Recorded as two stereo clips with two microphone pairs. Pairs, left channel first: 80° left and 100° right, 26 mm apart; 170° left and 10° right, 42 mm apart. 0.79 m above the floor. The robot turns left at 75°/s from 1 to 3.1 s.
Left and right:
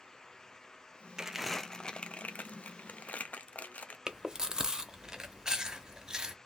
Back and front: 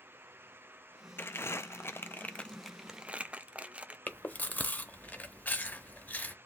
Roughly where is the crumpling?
Behind.